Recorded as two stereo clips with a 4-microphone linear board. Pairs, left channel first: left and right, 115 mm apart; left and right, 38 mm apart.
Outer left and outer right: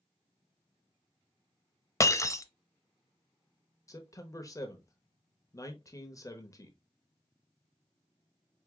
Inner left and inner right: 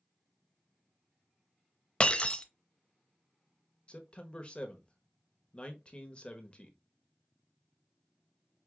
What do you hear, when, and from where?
2.0 s breaking glass: 30° left (ahead or behind), 0.6 m
3.9 s a man speaking: 30° left (ahead or behind), 0.9 m